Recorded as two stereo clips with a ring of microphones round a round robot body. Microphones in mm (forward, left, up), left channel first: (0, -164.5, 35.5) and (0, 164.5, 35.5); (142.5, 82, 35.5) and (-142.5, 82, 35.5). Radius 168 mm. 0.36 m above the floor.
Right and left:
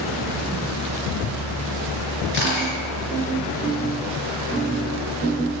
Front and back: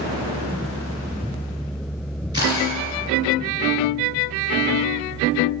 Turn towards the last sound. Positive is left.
turn(degrees=-100)